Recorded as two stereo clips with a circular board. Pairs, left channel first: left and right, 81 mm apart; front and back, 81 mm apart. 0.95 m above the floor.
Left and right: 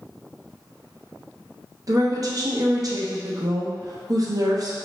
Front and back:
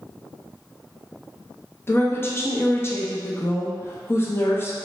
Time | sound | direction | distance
1.9 | a woman speaking | 55° right | 0.5 m